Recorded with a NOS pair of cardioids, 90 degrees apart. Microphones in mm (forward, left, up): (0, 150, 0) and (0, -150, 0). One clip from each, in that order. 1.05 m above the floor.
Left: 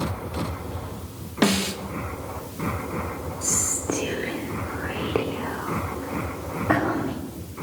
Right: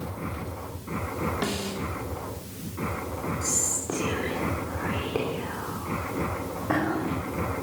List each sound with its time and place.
1.4 s a snare drum: 55° left, 1.2 m
3.4 s whispering: 35° left, 2.5 m